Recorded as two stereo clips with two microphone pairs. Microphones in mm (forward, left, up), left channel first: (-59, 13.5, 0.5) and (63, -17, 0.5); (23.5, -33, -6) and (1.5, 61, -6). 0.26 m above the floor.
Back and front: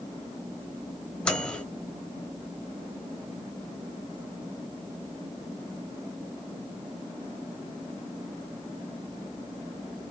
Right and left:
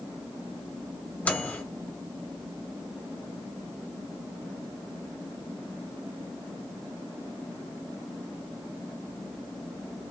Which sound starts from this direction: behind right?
A microwave, at 1.2 s.